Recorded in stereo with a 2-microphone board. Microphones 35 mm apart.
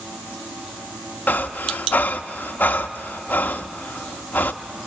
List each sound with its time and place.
1.3 s breathing: 70° left (ahead or behind), 0.8 m